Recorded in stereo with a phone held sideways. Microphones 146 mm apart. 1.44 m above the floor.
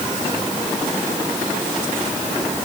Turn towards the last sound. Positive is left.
No sound to turn to.